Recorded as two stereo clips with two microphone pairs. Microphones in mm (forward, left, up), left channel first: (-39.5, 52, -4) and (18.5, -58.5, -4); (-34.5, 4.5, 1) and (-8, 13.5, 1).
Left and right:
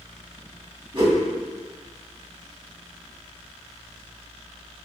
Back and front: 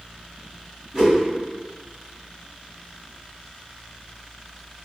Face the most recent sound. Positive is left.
turn(degrees=-45)